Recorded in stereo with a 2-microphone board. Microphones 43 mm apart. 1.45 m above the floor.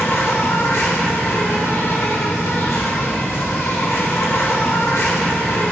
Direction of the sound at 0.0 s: 85° left.